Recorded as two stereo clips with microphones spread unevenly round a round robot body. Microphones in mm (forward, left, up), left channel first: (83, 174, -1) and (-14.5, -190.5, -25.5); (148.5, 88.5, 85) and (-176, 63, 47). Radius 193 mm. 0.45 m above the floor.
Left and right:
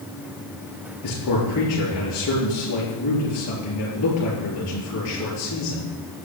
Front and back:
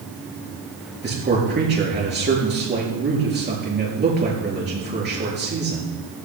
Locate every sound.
1.0 s a man speaking: 125° left, 7 m